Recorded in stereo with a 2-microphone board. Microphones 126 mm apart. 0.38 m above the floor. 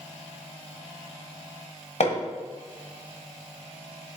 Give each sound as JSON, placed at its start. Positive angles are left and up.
{"t": 2.0, "sound": "hammering", "side_deg": 55, "distance_m": 1.4}